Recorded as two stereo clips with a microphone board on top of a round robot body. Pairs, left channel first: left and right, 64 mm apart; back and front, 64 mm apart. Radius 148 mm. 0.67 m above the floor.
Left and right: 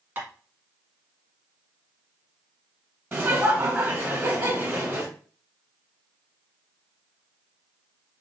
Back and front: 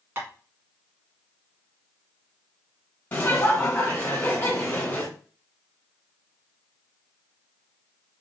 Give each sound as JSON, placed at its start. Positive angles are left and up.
{"t": 0.2, "sound": "tapping", "azimuth_deg": -45, "distance_m": 1.7}
{"t": 3.1, "sound": "laughter", "azimuth_deg": -135, "distance_m": 1.1}